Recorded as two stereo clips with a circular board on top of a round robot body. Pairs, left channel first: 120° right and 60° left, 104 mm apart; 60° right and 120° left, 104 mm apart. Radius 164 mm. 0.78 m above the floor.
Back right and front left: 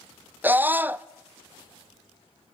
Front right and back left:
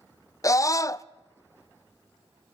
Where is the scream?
10° right, 0.5 m.